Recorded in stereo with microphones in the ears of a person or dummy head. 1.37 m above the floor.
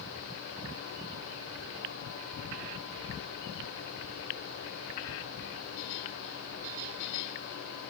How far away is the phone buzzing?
No phone buzzing in this recording.